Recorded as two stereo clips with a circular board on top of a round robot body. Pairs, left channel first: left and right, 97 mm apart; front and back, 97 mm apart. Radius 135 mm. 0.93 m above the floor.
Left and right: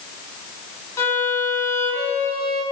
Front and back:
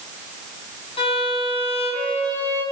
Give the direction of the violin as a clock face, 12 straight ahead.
11 o'clock.